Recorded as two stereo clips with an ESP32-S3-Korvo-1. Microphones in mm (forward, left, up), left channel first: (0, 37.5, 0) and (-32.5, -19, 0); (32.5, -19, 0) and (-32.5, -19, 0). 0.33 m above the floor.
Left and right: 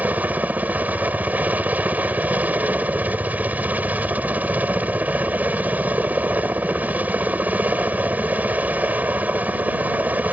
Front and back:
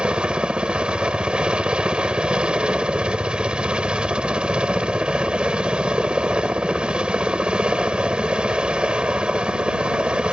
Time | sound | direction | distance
0.0 | a helicopter | 125° right | ?